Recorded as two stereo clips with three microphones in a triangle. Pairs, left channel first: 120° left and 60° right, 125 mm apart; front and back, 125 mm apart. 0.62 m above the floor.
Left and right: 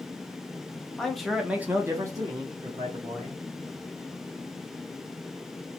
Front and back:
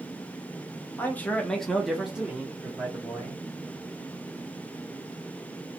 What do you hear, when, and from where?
1.0 s a man speaking: 45° left, 0.6 m; by 3.4 s 110° right, 1.2 m